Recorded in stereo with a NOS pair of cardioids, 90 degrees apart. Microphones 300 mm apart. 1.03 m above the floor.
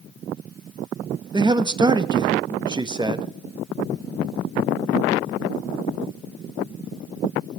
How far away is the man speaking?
About 0.9 m.